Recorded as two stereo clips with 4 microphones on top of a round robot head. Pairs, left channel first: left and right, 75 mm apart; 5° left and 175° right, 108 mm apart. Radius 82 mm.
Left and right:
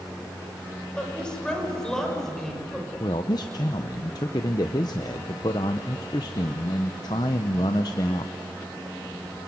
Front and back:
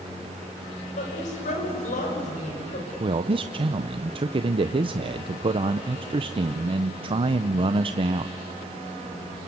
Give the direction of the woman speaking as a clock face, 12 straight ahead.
12 o'clock.